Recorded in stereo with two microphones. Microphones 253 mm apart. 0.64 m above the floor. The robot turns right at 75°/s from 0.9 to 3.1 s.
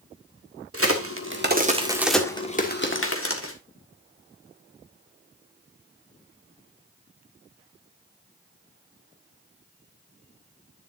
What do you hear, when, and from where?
0.7 s a crack: 60° right (ahead or behind), 1.6 m; by 3.5 s 55° left (ahead or behind), 1.6 m